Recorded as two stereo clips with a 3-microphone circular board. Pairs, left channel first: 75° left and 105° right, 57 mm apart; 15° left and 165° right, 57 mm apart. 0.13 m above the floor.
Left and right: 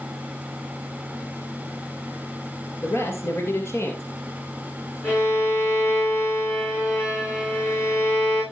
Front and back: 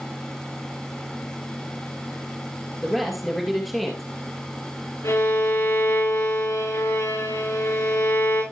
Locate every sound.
2.8 s a man speaking: 100° left, 3 m
5.0 s a violin: 35° left, 9.5 m